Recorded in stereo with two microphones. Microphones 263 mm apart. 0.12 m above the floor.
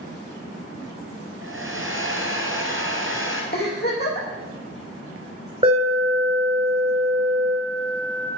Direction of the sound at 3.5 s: 40° left (ahead or behind).